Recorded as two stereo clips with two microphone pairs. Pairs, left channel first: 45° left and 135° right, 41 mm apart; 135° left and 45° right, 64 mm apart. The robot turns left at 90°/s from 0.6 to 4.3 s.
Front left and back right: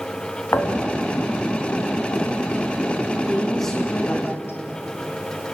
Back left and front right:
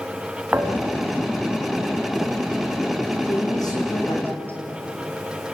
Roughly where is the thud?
Ahead left.